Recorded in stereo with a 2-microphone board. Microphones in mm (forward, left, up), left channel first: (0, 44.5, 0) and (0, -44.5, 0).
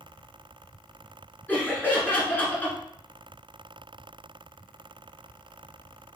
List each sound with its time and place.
1.5 s laughter: 20° left (ahead or behind), 1.4 m